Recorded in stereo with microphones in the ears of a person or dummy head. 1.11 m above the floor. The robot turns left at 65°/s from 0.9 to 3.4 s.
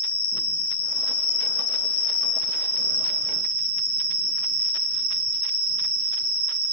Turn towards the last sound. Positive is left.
turn(degrees=-55)